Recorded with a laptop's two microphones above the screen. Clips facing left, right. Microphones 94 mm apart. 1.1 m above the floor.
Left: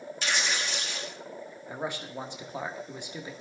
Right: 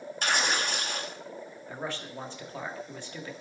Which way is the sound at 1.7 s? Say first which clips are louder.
Left 2 dB; 20° left (ahead or behind).